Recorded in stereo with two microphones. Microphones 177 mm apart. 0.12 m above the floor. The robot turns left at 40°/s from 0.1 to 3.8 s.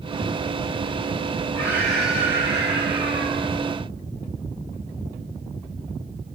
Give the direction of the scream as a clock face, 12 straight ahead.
11 o'clock.